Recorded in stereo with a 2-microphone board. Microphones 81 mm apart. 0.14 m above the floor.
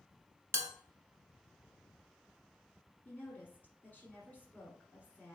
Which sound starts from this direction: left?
A woman speaking, at 3.0 s.